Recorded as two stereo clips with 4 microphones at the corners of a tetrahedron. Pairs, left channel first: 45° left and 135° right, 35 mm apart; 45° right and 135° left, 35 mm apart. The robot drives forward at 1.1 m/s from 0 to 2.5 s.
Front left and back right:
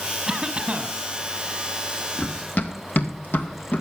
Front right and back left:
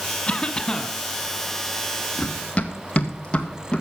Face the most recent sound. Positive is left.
turn(degrees=20)